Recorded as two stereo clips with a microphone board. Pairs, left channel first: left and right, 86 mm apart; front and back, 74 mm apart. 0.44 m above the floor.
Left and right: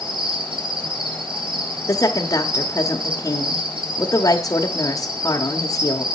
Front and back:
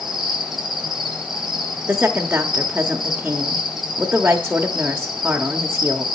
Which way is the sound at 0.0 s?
95° right.